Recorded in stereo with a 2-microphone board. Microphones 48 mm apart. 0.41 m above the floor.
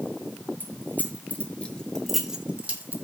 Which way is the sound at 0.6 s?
45° left (ahead or behind).